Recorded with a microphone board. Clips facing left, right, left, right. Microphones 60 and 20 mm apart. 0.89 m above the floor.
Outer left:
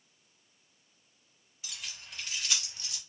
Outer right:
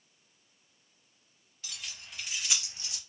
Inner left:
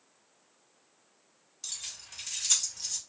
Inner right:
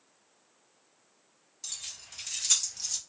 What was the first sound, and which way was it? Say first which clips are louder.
Keys jangling: even, even; 10° left (ahead or behind).